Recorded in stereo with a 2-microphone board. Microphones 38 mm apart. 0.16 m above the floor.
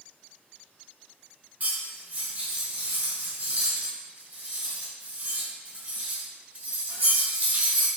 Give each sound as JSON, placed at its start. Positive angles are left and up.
{"t": 1.6, "sound": "cutlery clinking", "side_deg": -45, "distance_m": 1.5}